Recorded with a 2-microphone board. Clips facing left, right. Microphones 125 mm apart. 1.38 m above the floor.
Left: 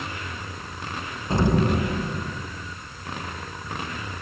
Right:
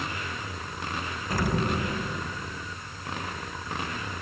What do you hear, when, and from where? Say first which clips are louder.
1.3 s an explosion: left 6 dB; 25° left (ahead or behind), 1.0 m